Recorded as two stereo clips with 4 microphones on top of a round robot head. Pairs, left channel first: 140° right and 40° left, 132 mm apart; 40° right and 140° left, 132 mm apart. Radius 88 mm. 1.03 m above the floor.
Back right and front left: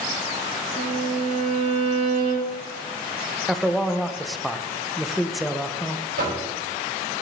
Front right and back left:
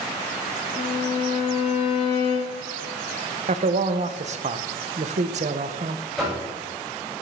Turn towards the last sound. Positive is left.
turn(degrees=50)